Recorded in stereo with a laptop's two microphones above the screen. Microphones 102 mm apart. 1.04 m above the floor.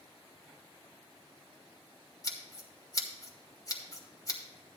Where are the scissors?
35° left (ahead or behind), 1.3 m.